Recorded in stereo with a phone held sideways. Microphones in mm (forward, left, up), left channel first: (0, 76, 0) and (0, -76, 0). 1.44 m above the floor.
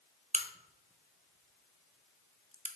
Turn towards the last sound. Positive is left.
turn(degrees=-50)  # may be behind; listen again after turning